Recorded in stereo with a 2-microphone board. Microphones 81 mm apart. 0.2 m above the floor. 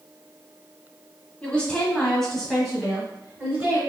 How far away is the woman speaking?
About 1.4 m.